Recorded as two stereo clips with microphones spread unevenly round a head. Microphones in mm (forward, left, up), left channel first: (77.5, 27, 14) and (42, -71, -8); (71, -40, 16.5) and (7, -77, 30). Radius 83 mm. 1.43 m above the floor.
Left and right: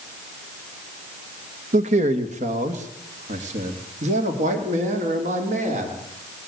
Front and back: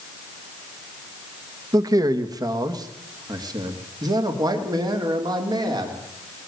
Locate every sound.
1.7 s a man speaking: 110° right, 1.6 m; by 6.0 s 125° right, 4.5 m